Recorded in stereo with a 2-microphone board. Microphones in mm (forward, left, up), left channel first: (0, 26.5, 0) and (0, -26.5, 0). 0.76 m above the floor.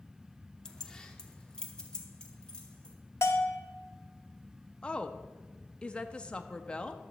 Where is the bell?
55° left (ahead or behind), 0.8 m.